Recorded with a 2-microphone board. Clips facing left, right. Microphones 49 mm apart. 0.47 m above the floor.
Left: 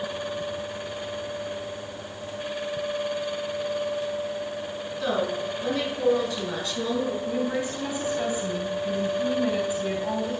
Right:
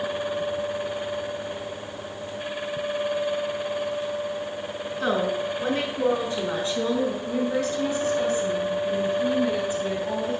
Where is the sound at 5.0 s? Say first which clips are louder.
Right 2 dB; 40° right (ahead or behind), 5.5 m; by 7.2 s 25° right (ahead or behind), 5 m.